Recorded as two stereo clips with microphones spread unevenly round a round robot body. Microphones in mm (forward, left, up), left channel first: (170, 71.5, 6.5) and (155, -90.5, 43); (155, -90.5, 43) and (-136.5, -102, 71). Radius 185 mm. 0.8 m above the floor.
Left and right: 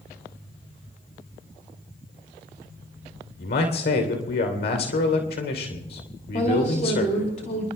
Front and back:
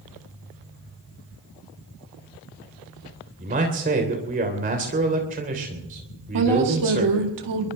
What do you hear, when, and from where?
3.4 s a man speaking: 115° left, 3 m
6.3 s a woman speaking: 150° left, 2.5 m